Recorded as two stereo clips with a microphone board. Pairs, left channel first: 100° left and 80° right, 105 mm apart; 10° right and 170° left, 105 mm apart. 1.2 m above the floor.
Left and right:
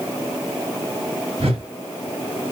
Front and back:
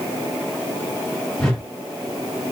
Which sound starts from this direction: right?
A whoosh, at 1.4 s.